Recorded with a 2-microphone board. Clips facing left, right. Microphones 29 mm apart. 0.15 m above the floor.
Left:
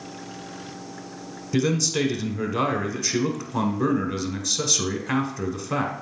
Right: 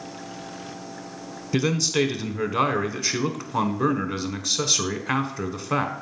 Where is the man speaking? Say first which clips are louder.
Even; 20° right (ahead or behind), 1.1 m.